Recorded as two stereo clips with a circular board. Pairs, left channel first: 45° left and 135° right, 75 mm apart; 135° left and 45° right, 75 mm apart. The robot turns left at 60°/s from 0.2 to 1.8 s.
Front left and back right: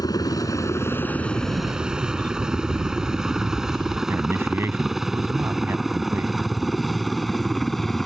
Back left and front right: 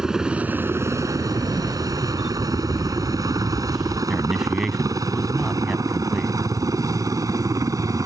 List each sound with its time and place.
0.0 s a helicopter: 35° left; by 8.1 s 40° right
1.3 s a camera shutter: 100° right; by 4.0 s 130° right
4.1 s a man speaking: 125° right